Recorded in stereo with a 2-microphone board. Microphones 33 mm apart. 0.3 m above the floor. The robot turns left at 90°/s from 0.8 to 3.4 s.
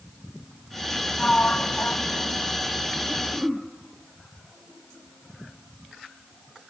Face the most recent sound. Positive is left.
turn(degrees=10)  # may be behind; listen again after turning